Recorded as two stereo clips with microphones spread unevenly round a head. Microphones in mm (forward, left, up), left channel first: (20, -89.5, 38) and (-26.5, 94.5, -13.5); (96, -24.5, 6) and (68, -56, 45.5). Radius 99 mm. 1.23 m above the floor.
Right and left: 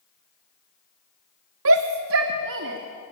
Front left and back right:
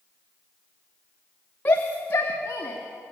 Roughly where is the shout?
Left.